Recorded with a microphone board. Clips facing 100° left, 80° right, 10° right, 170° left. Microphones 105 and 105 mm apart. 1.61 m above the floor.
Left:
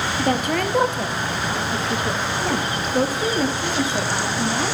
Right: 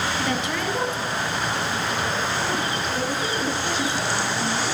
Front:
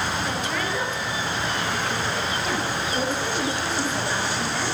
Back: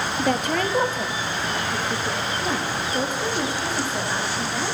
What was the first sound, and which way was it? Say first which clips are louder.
A woman speaking: left 4 dB, back 5 dB; 150° left.